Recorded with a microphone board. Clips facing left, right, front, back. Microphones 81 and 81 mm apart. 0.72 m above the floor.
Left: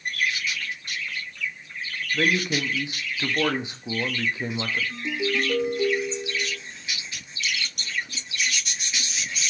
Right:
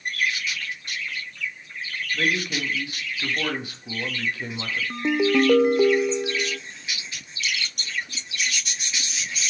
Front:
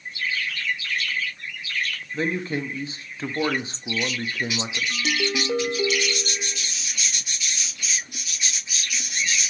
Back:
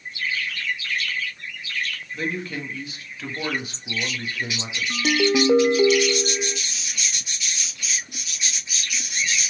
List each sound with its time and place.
2.1 s a man speaking: 35° left, 1.2 m
4.9 s a ringtone: 120° right, 0.6 m